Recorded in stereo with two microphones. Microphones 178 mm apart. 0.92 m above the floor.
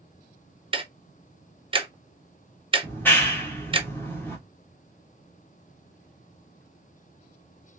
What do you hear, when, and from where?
0.7 s ticking: 30° right (ahead or behind), 0.7 m
2.8 s a clap: 10° left (ahead or behind), 1.1 m